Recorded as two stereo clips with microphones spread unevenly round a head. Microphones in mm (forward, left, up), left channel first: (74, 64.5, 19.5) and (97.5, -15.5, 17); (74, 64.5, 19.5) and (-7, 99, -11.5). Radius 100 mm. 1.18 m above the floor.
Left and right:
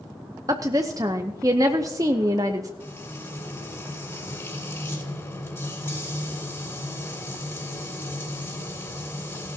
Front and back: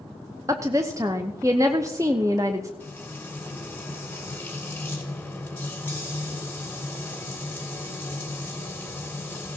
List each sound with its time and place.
0.5 s a woman speaking: 140° right, 0.6 m
2.8 s frying: 50° left, 3.5 m